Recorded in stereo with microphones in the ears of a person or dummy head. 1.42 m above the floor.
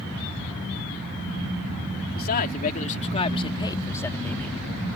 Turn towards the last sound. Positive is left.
turn(degrees=5)  # may be behind; listen again after turning